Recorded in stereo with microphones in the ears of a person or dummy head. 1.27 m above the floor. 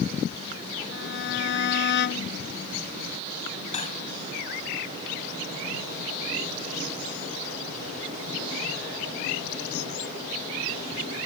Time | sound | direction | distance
0.9 | a violin | 60° left (ahead or behind) | ?
3.7 | cutlery clinking | 40° left (ahead or behind) | ?